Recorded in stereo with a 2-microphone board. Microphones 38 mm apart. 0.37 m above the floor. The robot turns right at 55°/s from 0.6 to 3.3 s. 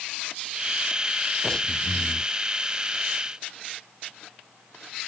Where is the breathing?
15° left; by 2.3 s 60° left.